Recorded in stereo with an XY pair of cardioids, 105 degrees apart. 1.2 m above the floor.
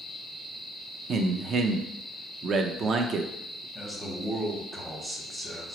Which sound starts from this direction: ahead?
A man speaking, at 3.8 s.